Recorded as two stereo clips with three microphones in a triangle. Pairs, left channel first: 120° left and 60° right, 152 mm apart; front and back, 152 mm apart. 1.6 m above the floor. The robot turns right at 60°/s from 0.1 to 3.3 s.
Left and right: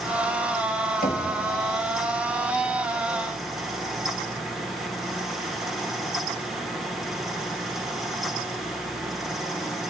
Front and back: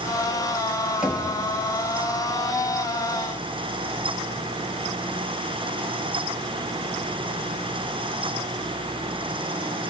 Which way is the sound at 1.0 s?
95° left.